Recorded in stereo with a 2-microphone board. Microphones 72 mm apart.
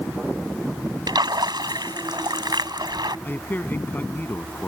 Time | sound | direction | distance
1.1 | a splash | 75° right (ahead or behind) | ?
3.2 | a man speaking | 30° left (ahead or behind) | ?